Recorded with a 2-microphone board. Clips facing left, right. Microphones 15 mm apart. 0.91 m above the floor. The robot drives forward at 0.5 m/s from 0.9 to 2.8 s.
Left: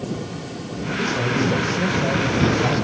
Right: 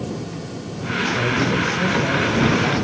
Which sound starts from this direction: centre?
A man speaking, at 1.0 s.